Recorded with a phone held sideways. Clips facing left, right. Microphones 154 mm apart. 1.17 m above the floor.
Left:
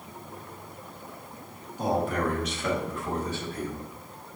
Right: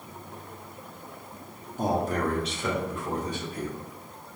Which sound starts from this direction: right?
A man speaking, at 1.8 s.